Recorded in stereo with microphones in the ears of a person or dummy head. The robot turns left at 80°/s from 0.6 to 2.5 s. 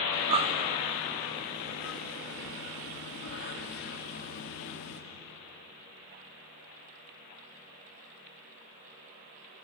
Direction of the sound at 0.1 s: 35° right (ahead or behind).